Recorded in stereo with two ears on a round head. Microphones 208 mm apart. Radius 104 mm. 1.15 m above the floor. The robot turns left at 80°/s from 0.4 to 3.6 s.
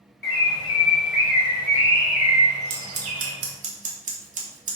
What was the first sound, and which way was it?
A bird, 135° left.